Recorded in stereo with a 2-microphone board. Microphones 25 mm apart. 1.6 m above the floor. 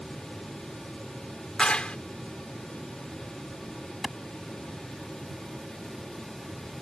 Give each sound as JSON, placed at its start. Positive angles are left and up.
{"t": 1.6, "sound": "a clap", "side_deg": 40}
{"t": 4.0, "sound": "a clap", "side_deg": 5}